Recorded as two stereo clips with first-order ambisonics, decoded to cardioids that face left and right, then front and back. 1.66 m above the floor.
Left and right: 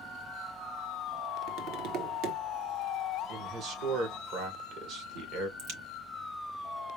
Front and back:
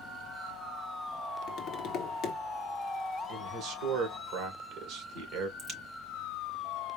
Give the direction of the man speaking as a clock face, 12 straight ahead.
5 o'clock.